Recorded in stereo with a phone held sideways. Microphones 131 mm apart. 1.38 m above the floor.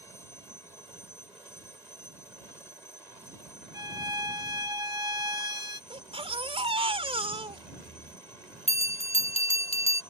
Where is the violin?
30° right (ahead or behind).